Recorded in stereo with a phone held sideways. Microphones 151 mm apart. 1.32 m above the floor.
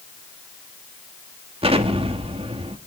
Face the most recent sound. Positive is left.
turn(degrees=-40)  # may be behind; listen again after turning